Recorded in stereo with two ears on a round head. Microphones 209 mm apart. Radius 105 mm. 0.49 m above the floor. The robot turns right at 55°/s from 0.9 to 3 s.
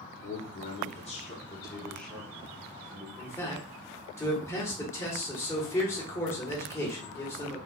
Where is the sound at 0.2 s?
110° left, 0.9 m; by 3.1 s 135° right, 0.9 m.